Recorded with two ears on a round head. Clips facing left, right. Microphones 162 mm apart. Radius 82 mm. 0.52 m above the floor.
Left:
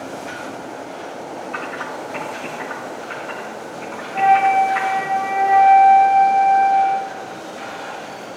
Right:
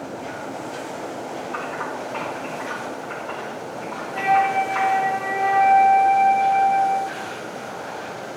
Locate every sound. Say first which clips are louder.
1.5 s typing on a keyboard: even; 25° left (ahead or behind), 5.5 m
4.1 s a flute: left 5 dB; 70° right (ahead or behind), 2.5 m